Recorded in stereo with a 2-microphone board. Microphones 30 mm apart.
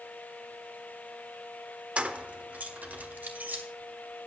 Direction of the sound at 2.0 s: 40° right (ahead or behind).